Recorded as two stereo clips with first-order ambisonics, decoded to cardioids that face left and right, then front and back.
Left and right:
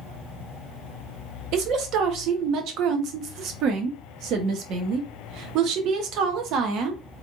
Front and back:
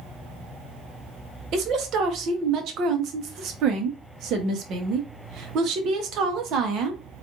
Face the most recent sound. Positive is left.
turn(degrees=-130)